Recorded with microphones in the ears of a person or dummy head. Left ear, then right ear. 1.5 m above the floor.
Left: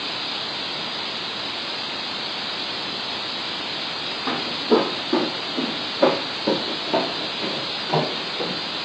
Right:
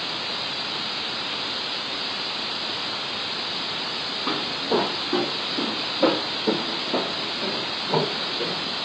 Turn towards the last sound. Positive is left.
turn(degrees=60)  # may be behind; listen again after turning